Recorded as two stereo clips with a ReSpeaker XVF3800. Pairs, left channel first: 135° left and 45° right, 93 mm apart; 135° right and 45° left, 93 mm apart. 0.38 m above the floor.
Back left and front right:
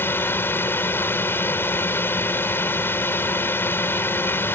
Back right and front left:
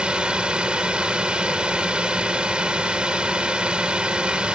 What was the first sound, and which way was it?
A drone, 110° left.